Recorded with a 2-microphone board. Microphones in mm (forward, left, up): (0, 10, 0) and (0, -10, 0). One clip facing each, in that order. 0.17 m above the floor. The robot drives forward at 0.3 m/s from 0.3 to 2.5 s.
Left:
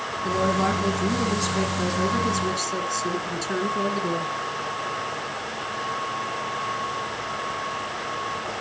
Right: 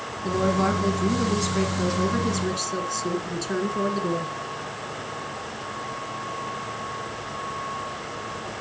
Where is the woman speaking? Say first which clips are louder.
Even; centre (ahead or behind), 1.2 m.